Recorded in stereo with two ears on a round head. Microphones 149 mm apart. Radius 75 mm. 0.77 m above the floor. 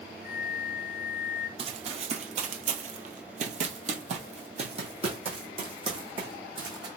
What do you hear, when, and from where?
0.2 s a flute: 20° right (ahead or behind), 2.5 m
1.6 s running footsteps: 35° right (ahead or behind), 1.1 m; by 6.9 s 30° right (ahead or behind), 2.5 m